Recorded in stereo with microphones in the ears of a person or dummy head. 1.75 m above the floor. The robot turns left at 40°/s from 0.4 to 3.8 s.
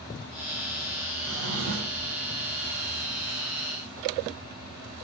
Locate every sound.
1.2 s a drawer: 80° right, 3.5 m; by 2.1 s 115° right, 3.5 m